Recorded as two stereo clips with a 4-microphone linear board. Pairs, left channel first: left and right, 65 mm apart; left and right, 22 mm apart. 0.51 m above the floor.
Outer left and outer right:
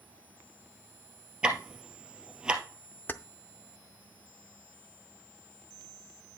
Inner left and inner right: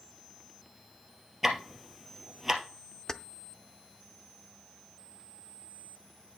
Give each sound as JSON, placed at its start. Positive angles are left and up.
{"t": 1.4, "sound": "ticking", "side_deg": -10, "distance_m": 2.0}
{"t": 3.1, "sound": "keys jangling", "side_deg": 30, "distance_m": 0.5}